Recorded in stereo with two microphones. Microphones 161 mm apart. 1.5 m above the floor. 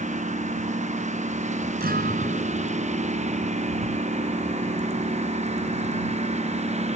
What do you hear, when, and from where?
0.0 s a lawn mower: 45° right (ahead or behind)
1.8 s a guitar: 70° right (ahead or behind)